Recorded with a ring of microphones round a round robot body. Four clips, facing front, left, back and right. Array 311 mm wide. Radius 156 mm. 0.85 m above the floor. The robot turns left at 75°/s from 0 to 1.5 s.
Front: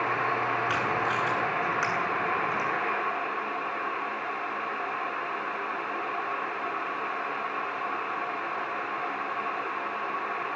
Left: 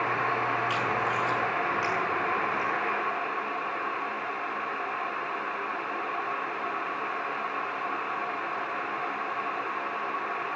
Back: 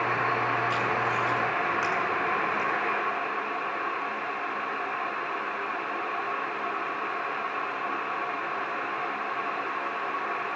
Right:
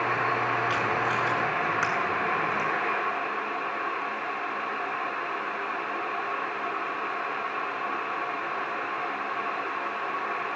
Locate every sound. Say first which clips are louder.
0.7 s tape being pulled: right 1 dB, back 1 dB; 10° right, 9.5 m; by 2.7 s 70° right, 9.5 m